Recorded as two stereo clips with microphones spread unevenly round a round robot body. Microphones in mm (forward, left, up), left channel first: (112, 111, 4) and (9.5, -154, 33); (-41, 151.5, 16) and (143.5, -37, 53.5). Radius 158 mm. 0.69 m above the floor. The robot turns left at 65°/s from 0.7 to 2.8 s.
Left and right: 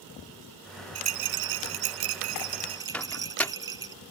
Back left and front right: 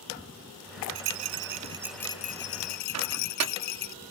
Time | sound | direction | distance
0.9 | a rattle | 70° right | ?
2.9 | a microwave | 15° right | ?